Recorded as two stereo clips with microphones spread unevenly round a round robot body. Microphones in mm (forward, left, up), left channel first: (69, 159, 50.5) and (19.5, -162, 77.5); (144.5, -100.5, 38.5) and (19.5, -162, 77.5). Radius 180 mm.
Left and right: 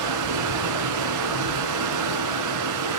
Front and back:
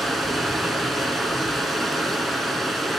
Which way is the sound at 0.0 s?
65° right.